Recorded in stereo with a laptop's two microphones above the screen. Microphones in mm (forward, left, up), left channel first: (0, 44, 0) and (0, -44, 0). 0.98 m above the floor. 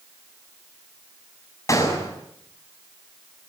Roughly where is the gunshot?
Left.